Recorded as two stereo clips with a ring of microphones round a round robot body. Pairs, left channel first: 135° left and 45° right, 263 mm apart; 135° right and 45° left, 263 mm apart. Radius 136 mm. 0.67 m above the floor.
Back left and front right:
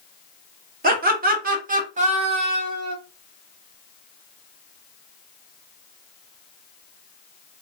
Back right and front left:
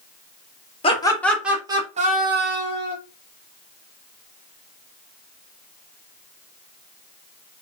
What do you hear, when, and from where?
0.8 s laughter: 80° right, 0.8 m; by 3.0 s 25° left, 1.1 m